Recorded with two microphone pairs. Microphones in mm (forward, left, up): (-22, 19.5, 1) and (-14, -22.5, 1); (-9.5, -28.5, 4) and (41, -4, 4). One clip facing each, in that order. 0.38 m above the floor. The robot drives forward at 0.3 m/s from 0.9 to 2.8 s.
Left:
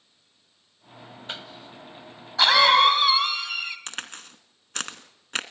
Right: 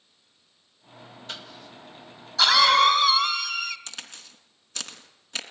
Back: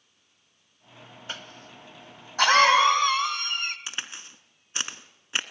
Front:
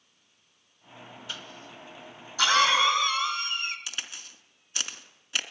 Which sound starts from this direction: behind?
A cough, at 1.3 s.